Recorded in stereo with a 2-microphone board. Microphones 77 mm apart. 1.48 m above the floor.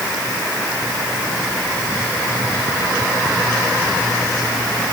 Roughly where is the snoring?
No snoring in this recording.